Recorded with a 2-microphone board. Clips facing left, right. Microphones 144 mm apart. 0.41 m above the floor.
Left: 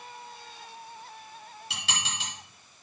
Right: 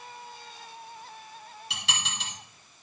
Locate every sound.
1.7 s dishes clattering: centre (ahead or behind), 6 m